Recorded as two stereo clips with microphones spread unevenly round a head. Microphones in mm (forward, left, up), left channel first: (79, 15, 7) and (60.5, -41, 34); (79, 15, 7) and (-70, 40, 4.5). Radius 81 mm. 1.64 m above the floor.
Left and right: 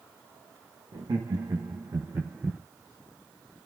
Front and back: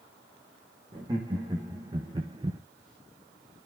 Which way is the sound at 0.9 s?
120° right.